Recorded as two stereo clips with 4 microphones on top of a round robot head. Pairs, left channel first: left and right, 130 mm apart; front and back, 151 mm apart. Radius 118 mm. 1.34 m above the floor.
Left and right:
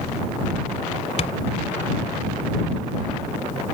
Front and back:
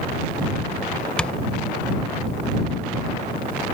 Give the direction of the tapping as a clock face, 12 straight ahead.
9 o'clock.